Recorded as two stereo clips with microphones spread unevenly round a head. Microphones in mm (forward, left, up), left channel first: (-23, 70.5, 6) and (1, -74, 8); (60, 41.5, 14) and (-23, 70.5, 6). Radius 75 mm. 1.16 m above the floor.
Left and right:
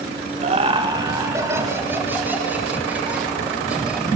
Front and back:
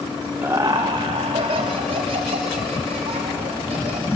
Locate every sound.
0.4 s laughter: 125° right, 0.9 m; by 4.1 s 165° right, 6 m